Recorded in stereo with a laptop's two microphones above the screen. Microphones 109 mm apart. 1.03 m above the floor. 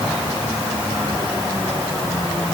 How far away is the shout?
No shout in this recording.